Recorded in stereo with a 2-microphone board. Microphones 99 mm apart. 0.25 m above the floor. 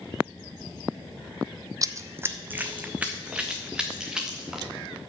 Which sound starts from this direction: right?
Running footsteps, at 1.8 s.